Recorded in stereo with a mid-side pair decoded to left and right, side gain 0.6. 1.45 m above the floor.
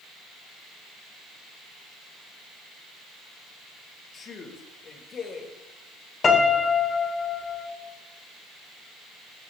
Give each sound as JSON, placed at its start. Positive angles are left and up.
{"t": 4.1, "sound": "a man speaking", "azimuth_deg": 40, "distance_m": 1.7}
{"t": 6.2, "sound": "a piano", "azimuth_deg": 35, "distance_m": 1.6}